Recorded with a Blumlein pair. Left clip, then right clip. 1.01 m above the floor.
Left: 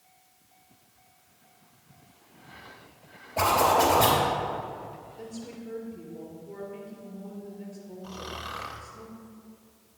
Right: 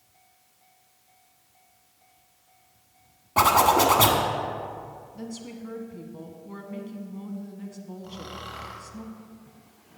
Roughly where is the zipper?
Ahead right.